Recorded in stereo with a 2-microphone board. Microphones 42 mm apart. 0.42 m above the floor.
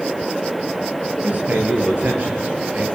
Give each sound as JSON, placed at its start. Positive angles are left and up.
{"t": 1.2, "sound": "a man speaking", "side_deg": -40, "distance_m": 8.5}